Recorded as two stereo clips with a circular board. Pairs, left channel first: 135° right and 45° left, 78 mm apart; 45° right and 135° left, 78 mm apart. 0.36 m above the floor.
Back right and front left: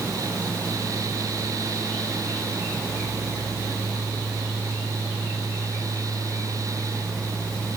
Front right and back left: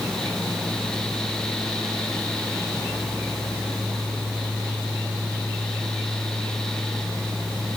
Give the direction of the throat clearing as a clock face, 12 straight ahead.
No throat clearing in this recording.